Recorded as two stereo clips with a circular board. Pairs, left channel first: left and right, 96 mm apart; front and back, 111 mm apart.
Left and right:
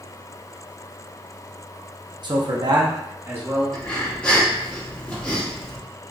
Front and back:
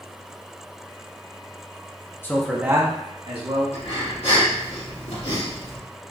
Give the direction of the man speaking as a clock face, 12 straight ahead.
2 o'clock.